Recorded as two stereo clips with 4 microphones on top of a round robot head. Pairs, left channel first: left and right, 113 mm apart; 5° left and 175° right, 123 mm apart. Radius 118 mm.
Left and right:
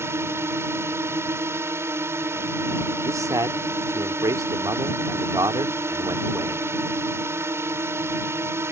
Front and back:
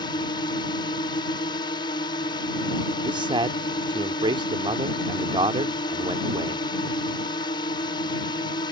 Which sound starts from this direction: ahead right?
A drone, at 0.0 s.